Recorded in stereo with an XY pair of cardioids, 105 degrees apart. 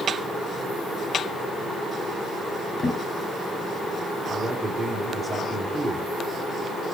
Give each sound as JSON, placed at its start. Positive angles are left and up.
{"t": 2.8, "sound": "a drawer", "azimuth_deg": 40, "distance_m": 5.0}
{"t": 4.3, "sound": "a man speaking", "azimuth_deg": -15, "distance_m": 3.5}